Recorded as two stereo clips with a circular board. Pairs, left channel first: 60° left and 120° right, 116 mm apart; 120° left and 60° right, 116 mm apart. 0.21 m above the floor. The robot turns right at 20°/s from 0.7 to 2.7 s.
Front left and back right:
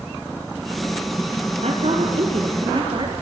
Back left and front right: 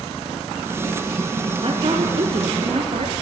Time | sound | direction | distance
1.6 | a woman speaking | 100° right | 4 m